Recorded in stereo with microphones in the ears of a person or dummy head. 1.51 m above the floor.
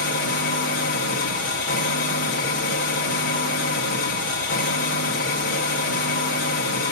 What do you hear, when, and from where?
0.0 s an engine running: 50° left (ahead or behind), 1.1 m